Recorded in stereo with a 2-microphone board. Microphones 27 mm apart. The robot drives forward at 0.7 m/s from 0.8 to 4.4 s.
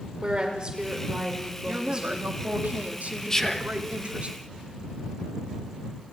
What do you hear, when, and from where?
0.2 s a woman speaking: 35° right (ahead or behind), 5.5 m; by 2.3 s 30° right (ahead or behind), 6.5 m
1.7 s a woman speaking: 85° right, 2.5 m; by 4.3 s 55° right (ahead or behind), 3 m
3.3 s whispering: 20° left (ahead or behind), 1.5 m; by 3.8 s 15° left (ahead or behind), 1.8 m